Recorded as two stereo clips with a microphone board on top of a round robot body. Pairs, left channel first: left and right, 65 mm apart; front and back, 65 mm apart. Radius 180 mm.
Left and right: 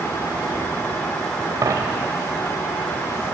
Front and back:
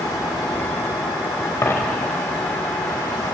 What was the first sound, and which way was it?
A dropped coin, 55° right.